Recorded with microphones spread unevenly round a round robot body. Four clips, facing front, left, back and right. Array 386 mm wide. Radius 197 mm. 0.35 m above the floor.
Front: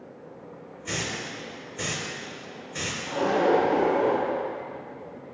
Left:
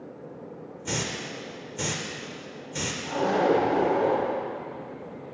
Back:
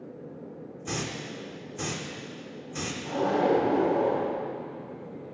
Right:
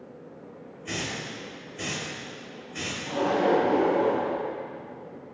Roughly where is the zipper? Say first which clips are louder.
Even, front 2 dB; behind left.